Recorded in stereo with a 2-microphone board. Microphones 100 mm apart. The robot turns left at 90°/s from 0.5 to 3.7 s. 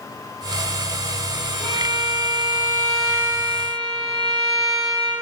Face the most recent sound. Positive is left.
turn(degrees=-115)